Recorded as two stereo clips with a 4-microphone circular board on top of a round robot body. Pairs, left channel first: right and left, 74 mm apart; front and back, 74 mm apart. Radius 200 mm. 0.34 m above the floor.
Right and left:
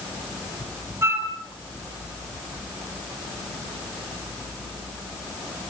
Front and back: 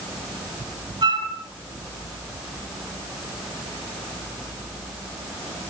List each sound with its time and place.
1.0 s a flute: 150° left, 2.5 m